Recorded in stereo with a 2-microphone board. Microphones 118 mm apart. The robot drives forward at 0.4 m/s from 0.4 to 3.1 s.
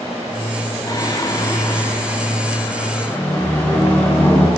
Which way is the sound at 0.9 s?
30° left (ahead or behind).